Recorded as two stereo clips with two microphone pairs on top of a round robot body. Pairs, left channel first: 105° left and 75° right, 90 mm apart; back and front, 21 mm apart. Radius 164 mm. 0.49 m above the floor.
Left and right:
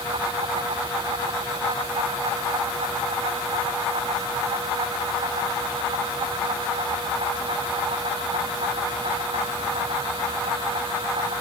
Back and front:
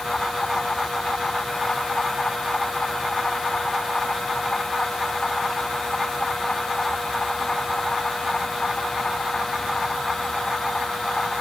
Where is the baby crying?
I don't hear a baby crying.